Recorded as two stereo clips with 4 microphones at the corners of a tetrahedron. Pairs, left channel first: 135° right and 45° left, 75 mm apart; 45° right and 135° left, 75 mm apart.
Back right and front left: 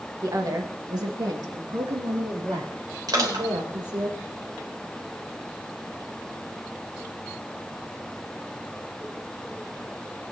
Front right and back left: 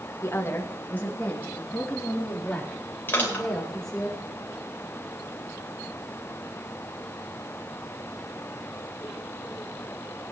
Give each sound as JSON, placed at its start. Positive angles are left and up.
{"t": 0.2, "sound": "a woman speaking", "azimuth_deg": 5, "distance_m": 1.7}
{"t": 3.1, "sound": "crushing", "azimuth_deg": 15, "distance_m": 3.5}